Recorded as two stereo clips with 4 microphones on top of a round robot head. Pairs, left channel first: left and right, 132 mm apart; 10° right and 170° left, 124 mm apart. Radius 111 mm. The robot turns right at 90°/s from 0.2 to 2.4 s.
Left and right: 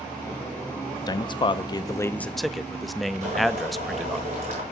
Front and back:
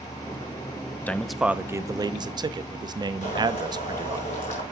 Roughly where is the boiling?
Ahead right.